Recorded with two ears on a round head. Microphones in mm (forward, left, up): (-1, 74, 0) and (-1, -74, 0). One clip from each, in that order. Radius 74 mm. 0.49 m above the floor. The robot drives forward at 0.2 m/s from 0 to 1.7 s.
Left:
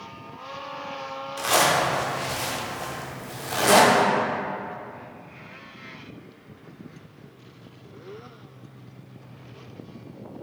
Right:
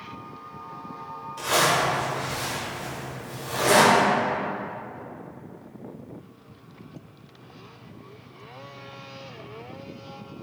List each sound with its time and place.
1.4 s a zipper: 40° left (ahead or behind), 0.6 m; by 4.0 s 45° left (ahead or behind), 0.6 m